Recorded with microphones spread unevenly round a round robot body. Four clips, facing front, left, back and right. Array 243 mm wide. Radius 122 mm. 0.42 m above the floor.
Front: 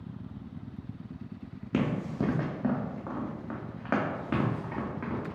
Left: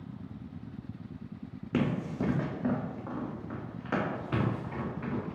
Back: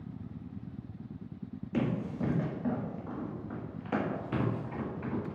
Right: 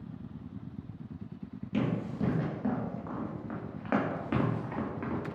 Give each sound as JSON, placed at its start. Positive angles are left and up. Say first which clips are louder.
{"t": 1.7, "sound": "running footsteps", "louder": "left 1 dB, front 3 dB", "azimuth_deg": 25, "distance_m": 1.2}